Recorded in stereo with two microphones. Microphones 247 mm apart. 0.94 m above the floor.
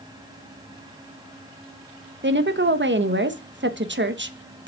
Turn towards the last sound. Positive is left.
turn(degrees=-45)  # may be behind; listen again after turning